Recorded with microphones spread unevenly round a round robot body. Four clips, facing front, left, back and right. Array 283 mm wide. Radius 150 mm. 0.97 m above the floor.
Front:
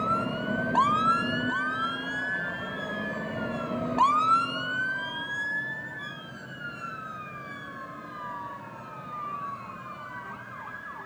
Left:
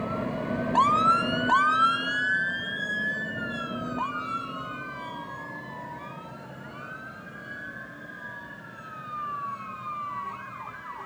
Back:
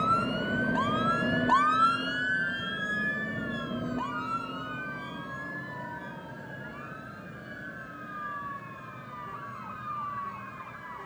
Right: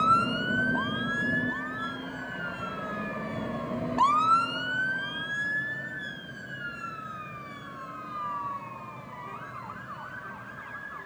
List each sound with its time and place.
Only background noise.